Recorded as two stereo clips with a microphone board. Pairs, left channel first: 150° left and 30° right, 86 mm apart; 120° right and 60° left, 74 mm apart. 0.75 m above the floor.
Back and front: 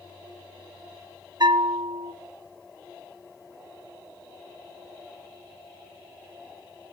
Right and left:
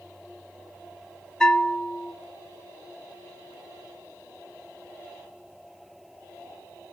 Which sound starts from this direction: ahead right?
A bell, at 1.4 s.